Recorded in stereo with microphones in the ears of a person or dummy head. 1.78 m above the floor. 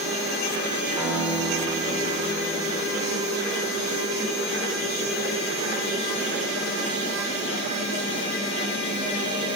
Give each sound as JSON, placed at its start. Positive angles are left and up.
{"t": 1.0, "sound": "a guitar", "side_deg": -15, "distance_m": 4.5}